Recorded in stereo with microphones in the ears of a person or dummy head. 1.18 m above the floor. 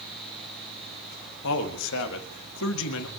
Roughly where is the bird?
No bird in this recording.